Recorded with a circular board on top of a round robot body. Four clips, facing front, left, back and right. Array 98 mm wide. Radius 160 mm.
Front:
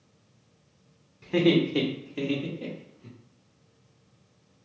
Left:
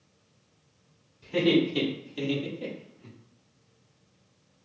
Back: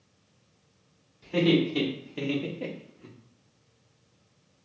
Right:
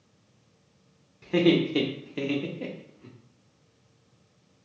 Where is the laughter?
50° right, 1.4 m; by 3.1 s 165° right, 1.1 m.